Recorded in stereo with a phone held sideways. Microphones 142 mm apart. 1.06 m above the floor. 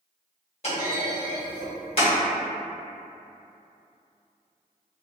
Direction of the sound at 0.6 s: 45° left (ahead or behind).